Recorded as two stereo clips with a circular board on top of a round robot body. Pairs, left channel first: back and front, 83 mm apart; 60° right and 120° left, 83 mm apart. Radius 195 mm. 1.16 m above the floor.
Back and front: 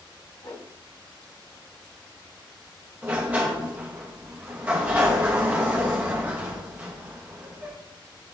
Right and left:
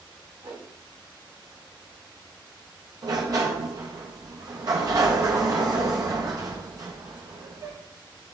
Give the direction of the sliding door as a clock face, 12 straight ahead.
10 o'clock.